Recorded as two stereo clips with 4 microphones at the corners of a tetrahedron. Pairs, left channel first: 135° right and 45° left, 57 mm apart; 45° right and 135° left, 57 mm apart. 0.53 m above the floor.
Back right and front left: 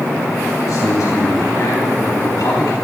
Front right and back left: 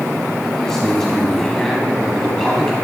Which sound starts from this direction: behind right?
A man speaking, at 0.6 s.